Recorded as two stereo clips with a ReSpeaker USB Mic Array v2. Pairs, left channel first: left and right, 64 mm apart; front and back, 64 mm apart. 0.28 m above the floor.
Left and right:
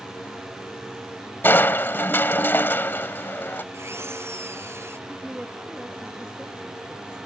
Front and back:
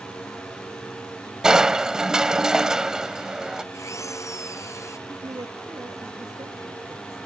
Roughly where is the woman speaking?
Behind.